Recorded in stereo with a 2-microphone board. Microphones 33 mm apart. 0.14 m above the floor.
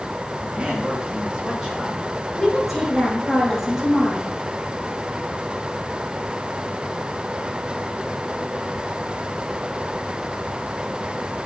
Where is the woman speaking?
10° right (ahead or behind), 4 m.